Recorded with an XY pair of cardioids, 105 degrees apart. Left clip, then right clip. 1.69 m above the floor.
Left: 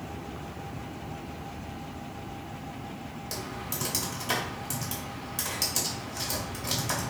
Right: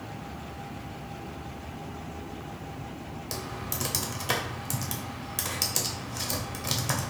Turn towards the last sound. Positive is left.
turn(degrees=-30)